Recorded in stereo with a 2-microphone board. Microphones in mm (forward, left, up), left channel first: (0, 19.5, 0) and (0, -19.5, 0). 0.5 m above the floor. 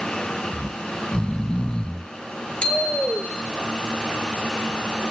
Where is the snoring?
25° left (ahead or behind), 1.1 m.